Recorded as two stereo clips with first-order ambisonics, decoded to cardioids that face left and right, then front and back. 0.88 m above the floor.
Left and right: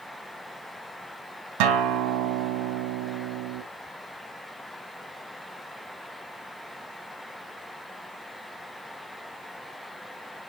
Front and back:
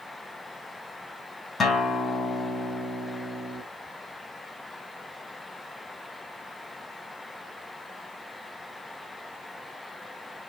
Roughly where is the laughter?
I don't hear laughter.